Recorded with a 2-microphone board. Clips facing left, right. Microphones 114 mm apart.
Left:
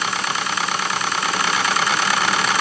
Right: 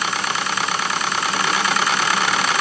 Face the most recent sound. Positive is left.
No sound to turn to.